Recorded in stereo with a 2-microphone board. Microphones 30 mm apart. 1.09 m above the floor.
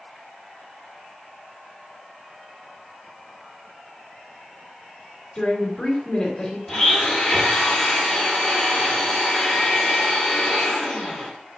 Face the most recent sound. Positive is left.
turn(degrees=5)  # may be behind; listen again after turning